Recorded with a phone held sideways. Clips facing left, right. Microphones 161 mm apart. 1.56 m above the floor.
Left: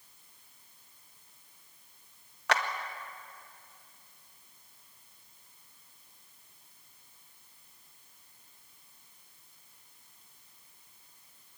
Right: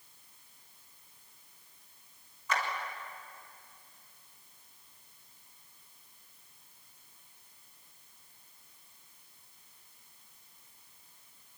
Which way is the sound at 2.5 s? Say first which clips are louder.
Left 4 dB; 75° left (ahead or behind).